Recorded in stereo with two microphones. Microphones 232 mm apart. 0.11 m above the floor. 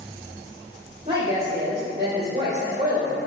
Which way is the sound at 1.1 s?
25° right (ahead or behind).